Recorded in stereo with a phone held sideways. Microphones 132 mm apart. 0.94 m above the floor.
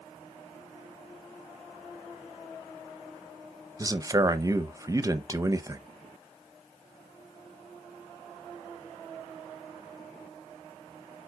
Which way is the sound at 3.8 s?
25° right (ahead or behind).